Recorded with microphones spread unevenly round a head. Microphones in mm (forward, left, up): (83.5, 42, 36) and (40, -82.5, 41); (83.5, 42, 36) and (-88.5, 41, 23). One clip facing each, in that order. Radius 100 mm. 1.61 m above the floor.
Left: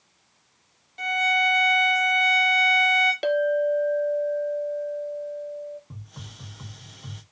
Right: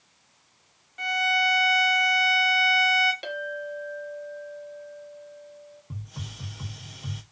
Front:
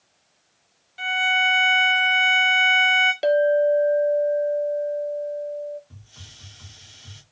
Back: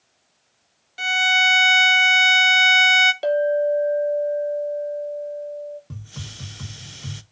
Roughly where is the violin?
Behind left.